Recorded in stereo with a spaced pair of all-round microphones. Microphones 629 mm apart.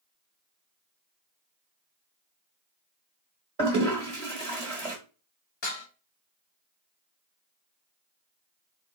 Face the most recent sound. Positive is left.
turn(degrees=70)  # may be behind; listen again after turning